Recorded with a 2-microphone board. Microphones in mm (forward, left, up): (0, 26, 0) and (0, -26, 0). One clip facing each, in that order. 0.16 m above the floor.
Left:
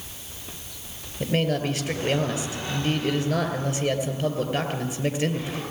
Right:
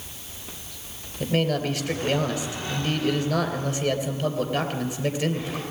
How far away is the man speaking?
About 3 m.